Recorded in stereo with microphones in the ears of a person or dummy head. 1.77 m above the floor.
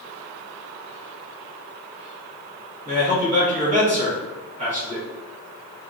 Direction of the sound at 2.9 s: 40° right (ahead or behind).